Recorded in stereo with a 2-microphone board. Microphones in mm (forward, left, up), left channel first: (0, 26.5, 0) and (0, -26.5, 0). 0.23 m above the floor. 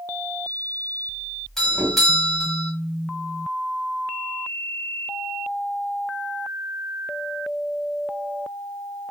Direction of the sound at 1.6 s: 5° left (ahead or behind).